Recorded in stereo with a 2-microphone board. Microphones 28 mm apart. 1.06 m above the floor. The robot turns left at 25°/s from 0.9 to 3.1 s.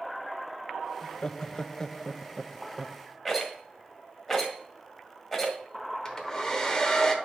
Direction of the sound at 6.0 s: 20° left (ahead or behind).